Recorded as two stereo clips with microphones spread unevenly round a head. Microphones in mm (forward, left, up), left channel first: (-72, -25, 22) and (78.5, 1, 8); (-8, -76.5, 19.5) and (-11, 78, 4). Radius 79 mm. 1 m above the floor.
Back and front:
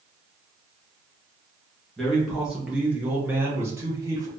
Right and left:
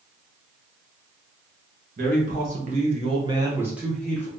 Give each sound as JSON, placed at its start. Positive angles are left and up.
{"t": 2.0, "sound": "a man speaking", "azimuth_deg": 95, "distance_m": 1.4}